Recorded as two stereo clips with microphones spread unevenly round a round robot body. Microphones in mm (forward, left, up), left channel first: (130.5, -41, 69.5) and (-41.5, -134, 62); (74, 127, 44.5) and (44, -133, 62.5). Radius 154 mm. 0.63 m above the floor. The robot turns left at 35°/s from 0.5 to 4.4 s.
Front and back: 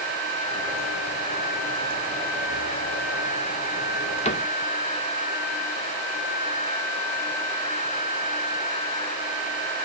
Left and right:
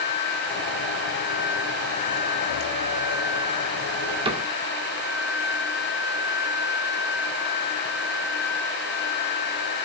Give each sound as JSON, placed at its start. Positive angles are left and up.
{"t": 4.2, "sound": "a cupboard door", "azimuth_deg": -25, "distance_m": 1.6}